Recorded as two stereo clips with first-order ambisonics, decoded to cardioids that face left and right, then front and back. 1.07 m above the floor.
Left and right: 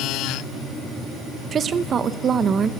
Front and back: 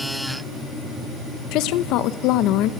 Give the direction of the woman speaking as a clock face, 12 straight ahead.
1 o'clock.